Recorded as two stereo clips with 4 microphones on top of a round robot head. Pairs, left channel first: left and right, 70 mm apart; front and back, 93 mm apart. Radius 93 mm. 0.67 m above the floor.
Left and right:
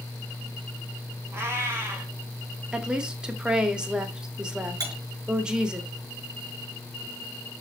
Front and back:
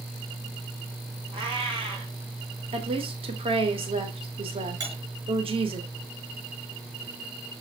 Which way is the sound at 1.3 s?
140° right.